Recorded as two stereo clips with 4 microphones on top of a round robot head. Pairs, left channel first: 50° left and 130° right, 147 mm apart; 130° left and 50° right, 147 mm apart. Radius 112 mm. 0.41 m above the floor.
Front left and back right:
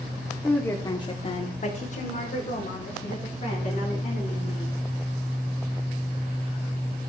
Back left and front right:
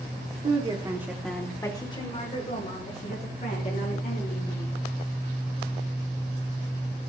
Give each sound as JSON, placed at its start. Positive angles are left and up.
{"t": 0.4, "sound": "a woman speaking", "azimuth_deg": -30, "distance_m": 1.1}